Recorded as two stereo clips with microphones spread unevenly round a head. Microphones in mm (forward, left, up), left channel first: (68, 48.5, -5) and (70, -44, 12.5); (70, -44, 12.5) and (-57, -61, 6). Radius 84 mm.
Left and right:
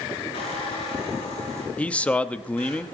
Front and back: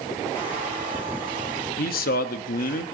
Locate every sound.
0.3 s a squeak: 75° left, 8 m
1.8 s a man speaking: 15° left, 1.1 m